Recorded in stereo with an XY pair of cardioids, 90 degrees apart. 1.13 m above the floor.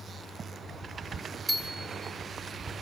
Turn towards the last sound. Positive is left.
turn(degrees=10)